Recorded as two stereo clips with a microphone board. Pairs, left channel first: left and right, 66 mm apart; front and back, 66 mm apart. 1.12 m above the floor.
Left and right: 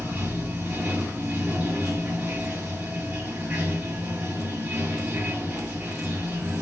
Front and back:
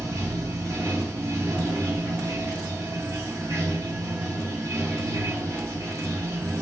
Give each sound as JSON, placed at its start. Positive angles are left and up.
{"t": 0.0, "sound": "running water", "azimuth_deg": -155, "distance_m": 1.6}